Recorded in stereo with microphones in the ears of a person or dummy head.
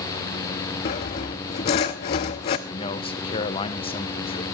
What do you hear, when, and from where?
0.8 s sawing: 25° left (ahead or behind), 0.6 m
2.7 s a man speaking: 30° left (ahead or behind), 1.0 m